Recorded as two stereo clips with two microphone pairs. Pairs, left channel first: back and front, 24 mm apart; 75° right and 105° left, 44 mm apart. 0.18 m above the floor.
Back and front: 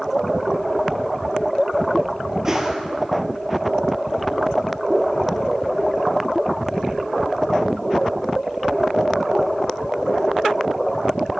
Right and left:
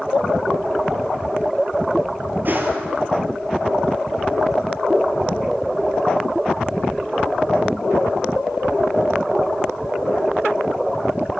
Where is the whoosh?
65° left, 1.5 m.